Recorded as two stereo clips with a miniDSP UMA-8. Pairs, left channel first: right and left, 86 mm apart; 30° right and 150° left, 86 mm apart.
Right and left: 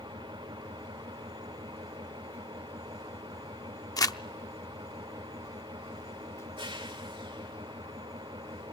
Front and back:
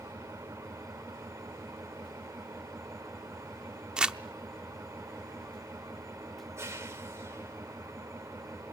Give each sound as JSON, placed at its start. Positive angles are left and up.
{"t": 0.0, "sound": "an engine running", "azimuth_deg": 95, "distance_m": 2.5}
{"t": 4.0, "sound": "crumpling", "azimuth_deg": -130, "distance_m": 0.5}